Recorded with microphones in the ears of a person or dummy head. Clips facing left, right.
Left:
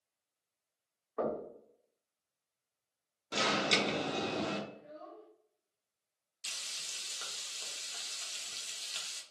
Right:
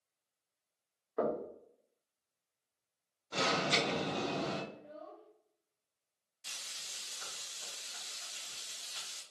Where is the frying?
45° left (ahead or behind), 0.7 m.